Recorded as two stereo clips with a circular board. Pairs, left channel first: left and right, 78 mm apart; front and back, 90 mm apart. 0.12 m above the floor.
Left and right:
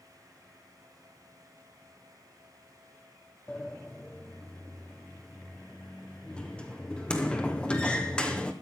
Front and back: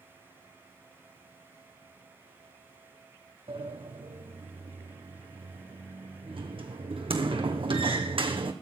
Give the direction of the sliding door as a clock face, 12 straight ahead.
6 o'clock.